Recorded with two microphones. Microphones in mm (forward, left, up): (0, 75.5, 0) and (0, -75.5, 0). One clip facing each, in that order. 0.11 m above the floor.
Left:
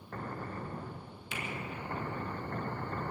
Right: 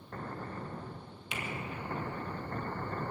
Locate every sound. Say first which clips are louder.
1.3 s a finger snap: right 1 dB; 65° right (ahead or behind), 3 m